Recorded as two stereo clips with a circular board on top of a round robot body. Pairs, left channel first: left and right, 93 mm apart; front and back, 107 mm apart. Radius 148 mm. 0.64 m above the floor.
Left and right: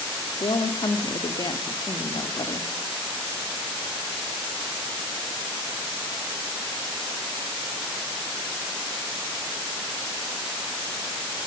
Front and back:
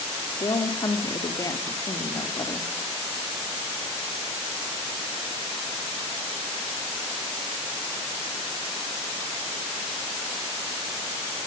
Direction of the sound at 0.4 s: 55° left.